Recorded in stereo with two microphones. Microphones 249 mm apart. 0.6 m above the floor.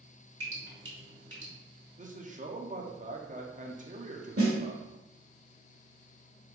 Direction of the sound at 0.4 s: 55° right (ahead or behind).